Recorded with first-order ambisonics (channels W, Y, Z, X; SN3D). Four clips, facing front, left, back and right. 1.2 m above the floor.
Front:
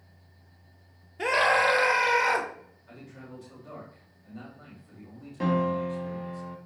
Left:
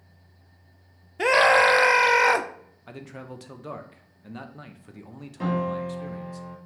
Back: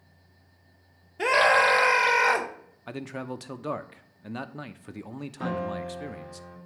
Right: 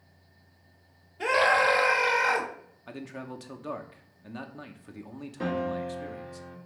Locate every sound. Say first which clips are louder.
1.2 s a scream: left 5 dB, back 3 dB; 105° left, 0.9 m
2.9 s a man speaking: right 1 dB, back 12 dB; straight behind, 0.7 m
5.4 s a piano: left 3 dB, front 5 dB; 15° left, 1.2 m